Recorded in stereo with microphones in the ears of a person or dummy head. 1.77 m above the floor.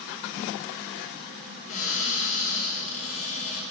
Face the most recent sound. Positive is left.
turn(degrees=40)  # may be behind; listen again after turning